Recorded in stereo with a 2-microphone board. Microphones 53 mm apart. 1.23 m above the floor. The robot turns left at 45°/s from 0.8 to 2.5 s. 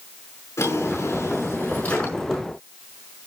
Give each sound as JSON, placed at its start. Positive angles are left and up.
{"t": 0.6, "sound": "a drawer", "azimuth_deg": 80, "distance_m": 5.5}